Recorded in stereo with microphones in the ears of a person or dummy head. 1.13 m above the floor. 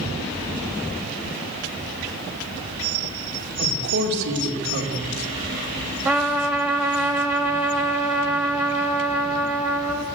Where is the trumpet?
Centre (ahead or behind), 0.9 m.